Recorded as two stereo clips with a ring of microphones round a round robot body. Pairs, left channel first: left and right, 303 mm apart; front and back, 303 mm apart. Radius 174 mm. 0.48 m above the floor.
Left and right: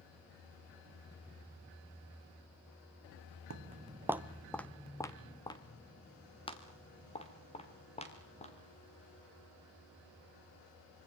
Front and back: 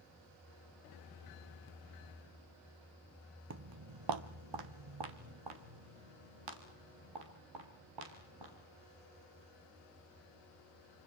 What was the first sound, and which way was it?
Footsteps, 135° right.